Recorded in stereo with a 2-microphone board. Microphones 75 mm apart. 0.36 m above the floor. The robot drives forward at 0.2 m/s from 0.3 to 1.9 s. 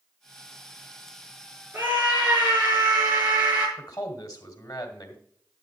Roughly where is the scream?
Right.